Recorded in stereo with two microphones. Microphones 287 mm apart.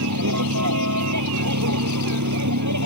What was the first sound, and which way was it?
A vehicle, 90° right.